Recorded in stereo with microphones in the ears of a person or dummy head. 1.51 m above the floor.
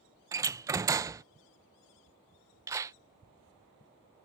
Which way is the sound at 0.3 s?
20° right (ahead or behind).